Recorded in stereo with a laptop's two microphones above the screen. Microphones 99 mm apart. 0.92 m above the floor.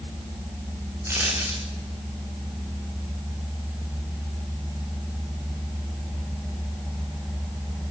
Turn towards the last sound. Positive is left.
turn(degrees=-25)  # may be behind; listen again after turning